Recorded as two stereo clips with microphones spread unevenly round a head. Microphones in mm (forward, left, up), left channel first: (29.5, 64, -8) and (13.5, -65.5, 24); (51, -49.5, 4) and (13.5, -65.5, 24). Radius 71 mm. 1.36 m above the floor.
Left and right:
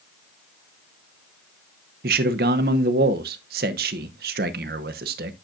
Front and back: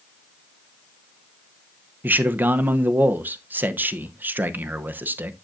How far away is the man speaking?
About 0.9 m.